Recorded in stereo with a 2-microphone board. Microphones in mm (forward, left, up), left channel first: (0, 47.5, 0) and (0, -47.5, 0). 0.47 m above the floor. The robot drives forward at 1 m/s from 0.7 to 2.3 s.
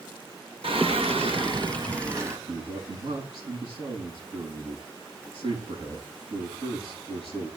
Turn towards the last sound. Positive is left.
turn(degrees=-75)  # may be behind; listen again after turning